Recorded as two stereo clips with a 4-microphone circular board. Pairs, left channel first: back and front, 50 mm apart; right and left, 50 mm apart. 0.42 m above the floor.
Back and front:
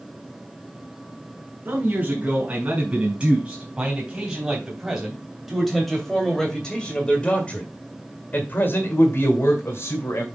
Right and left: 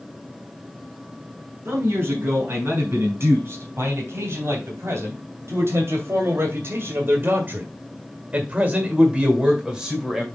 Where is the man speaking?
55° left, 4 m; by 10.2 s straight behind, 2.5 m.